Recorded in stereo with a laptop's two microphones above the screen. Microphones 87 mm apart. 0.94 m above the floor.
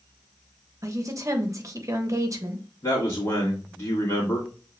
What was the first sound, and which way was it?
A woman speaking, 40° right (ahead or behind).